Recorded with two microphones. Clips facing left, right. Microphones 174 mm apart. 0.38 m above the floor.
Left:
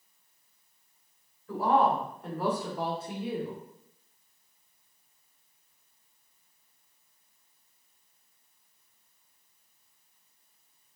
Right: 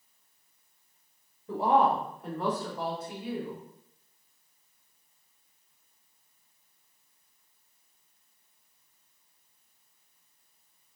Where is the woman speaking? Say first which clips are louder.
Right 1 dB; 25° right (ahead or behind), 1.1 m; by 3.6 s 45° left (ahead or behind), 1.3 m.